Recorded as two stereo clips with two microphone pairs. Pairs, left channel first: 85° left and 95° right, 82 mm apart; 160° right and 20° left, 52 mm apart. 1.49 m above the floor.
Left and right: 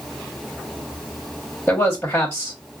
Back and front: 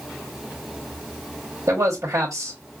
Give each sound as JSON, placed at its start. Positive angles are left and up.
{"t": 1.7, "sound": "a man speaking", "azimuth_deg": 20, "distance_m": 1.2}